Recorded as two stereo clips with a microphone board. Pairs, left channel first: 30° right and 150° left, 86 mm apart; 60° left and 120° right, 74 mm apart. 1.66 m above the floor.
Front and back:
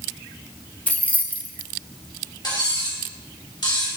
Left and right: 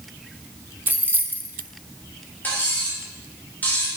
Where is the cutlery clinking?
5° right, 2 m.